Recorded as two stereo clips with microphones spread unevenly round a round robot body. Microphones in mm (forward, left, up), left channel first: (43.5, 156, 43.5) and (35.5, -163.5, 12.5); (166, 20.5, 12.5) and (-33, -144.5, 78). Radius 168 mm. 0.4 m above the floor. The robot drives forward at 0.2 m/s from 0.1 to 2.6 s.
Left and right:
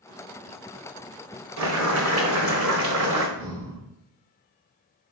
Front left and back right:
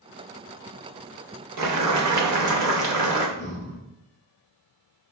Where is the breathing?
150° right, 1.6 m.